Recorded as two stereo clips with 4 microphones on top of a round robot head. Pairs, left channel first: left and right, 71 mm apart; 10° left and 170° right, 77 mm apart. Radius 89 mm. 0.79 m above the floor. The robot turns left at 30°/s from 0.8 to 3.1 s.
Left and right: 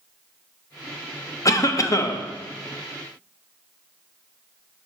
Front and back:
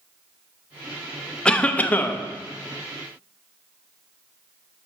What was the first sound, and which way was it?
A cough, 85° left.